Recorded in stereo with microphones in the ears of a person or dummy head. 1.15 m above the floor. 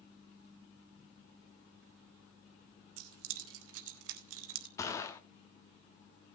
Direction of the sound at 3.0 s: 80° right.